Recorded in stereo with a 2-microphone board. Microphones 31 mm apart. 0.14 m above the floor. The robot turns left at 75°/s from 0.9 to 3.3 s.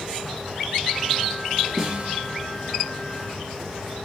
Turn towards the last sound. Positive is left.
turn(degrees=-135)